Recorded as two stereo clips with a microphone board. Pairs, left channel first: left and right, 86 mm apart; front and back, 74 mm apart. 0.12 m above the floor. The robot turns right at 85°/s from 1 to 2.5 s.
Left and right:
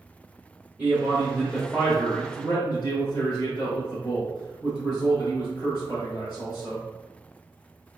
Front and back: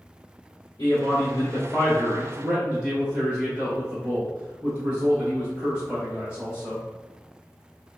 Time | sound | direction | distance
0.8 | a man speaking | 20° right | 1.8 m